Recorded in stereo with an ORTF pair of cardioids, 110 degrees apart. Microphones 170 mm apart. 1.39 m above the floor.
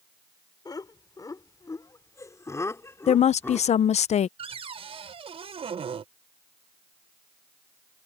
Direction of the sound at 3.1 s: 45° left.